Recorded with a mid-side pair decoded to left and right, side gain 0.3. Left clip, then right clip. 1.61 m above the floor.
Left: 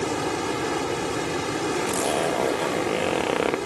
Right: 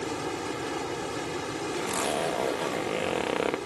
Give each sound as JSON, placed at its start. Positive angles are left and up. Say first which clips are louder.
{"t": 0.0, "sound": "running water", "louder": "left 6 dB", "azimuth_deg": 65}
{"t": 1.7, "sound": "a zipper", "louder": "left 3 dB", "azimuth_deg": 45}